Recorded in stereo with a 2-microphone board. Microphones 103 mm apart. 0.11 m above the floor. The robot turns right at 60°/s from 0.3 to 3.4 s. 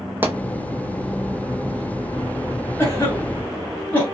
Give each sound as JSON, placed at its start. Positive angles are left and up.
{"t": 0.2, "sound": "a pop", "side_deg": -20, "distance_m": 0.8}
{"t": 2.8, "sound": "a cough", "side_deg": 25, "distance_m": 1.2}